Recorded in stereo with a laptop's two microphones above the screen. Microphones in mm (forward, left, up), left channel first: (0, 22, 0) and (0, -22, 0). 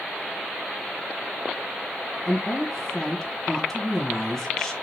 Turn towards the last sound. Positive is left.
turn(degrees=5)  # may be behind; listen again after turning